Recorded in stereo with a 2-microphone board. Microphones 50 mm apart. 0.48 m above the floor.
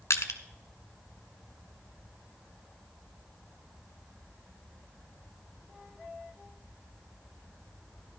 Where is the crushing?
80° left, 1.1 m.